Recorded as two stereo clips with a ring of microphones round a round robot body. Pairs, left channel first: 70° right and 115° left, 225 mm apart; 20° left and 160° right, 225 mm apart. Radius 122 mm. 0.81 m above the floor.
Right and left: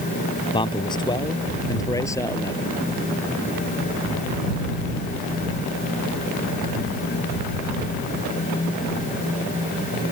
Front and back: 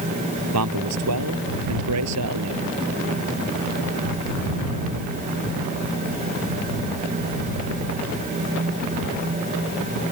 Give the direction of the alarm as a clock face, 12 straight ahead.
I don't hear an alarm.